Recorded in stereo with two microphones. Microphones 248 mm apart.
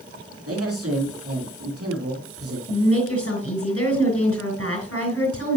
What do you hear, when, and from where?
0.5 s a man speaking: 70° right (ahead or behind), 4 m
2.7 s a woman speaking: 65° left (ahead or behind), 6 m